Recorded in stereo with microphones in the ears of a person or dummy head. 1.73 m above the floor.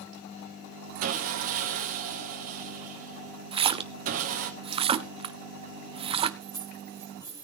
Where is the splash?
30° right (ahead or behind), 0.7 m.